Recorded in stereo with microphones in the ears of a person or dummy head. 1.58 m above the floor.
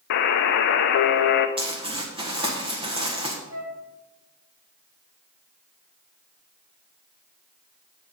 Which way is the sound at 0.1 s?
55° left (ahead or behind).